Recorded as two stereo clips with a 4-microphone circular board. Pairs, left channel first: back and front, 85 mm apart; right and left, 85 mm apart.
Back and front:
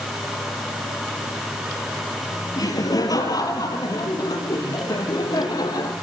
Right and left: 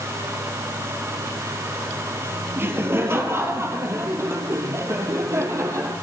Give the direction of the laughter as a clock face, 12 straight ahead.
7 o'clock.